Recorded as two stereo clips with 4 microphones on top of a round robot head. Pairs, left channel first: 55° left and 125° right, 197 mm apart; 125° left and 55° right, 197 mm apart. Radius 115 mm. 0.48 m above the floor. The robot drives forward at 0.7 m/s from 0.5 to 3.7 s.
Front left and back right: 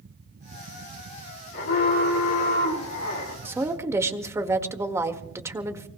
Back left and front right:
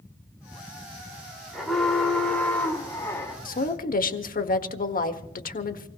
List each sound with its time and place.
1.5 s an alarm: 35° left, 4 m; by 3.4 s 45° left, 3.5 m
3.5 s a woman speaking: 160° left, 1.5 m